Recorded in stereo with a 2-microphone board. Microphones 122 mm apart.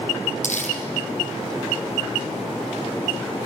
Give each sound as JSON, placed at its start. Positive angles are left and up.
{"t": 0.4, "sound": "crumpling", "side_deg": 80, "distance_m": 4.5}